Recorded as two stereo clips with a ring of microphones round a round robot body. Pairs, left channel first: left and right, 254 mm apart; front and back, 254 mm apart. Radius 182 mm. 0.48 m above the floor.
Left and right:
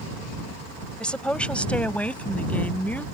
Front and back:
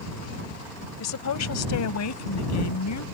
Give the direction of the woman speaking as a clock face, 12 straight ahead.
12 o'clock.